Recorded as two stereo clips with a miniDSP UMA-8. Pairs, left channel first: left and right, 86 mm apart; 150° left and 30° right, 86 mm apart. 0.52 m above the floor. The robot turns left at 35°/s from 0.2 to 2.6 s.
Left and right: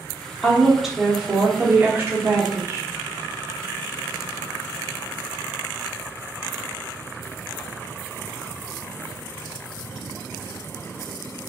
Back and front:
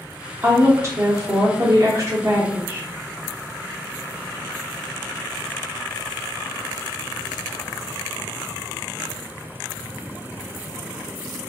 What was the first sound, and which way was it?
A woman speaking, 10° left.